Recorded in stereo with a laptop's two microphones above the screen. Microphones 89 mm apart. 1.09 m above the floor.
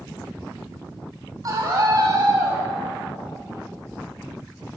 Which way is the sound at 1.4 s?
45° right (ahead or behind).